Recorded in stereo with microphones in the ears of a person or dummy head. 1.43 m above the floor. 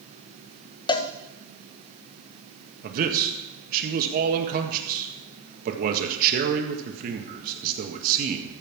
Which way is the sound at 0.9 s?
30° left (ahead or behind).